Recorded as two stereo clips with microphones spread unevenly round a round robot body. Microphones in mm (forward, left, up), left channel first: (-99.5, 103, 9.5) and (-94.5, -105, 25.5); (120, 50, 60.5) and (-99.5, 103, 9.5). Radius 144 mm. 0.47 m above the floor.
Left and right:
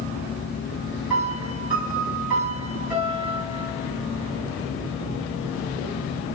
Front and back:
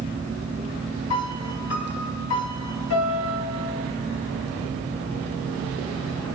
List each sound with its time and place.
1.1 s a piano: straight ahead, 3.5 m